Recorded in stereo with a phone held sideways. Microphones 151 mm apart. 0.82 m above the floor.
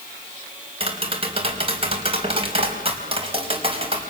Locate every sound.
0.8 s tapping: 40° right (ahead or behind), 5 m